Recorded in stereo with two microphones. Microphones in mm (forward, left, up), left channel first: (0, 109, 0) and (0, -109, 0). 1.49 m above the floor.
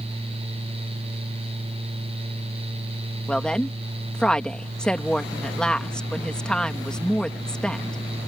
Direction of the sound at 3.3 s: 5° left (ahead or behind).